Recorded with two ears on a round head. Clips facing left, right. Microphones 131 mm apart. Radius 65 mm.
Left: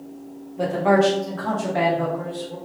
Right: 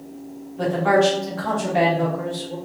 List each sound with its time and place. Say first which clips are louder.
0.6 s a man speaking: even; 15° left (ahead or behind), 1.1 m; by 2.5 s 40° right (ahead or behind), 1.2 m